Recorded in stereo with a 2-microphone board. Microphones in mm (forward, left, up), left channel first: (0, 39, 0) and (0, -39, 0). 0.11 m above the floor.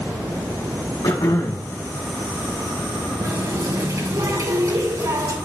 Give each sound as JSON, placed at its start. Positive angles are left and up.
{"t": 1.0, "sound": "throat clearing", "side_deg": 70, "distance_m": 3.5}
{"t": 3.2, "sound": "a running tap", "side_deg": -55, "distance_m": 4.0}